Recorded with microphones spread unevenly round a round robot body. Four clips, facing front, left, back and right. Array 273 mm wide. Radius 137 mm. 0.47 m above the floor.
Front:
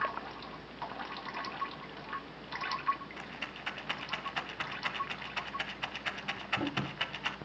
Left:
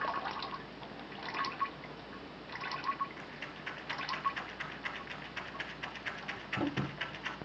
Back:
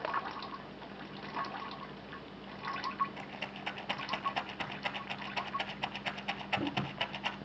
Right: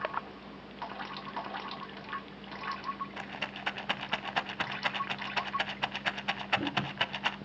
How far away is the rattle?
About 0.7 m.